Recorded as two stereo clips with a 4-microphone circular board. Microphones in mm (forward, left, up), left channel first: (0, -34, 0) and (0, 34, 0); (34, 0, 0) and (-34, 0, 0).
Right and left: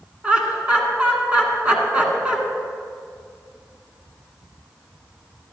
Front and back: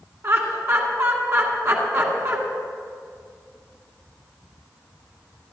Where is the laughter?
160° left, 2 m.